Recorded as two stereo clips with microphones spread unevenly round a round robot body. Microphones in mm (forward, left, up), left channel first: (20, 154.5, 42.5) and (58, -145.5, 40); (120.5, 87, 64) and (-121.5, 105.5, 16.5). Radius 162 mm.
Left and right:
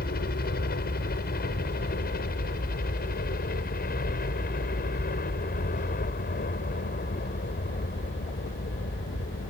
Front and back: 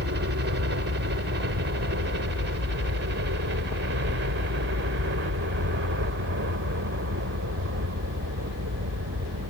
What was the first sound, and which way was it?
A helicopter, 155° left.